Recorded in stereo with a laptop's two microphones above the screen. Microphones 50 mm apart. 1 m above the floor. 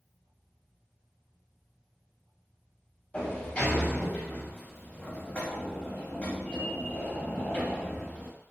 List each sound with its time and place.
3.1 s a sliding door: 25° left (ahead or behind), 0.8 m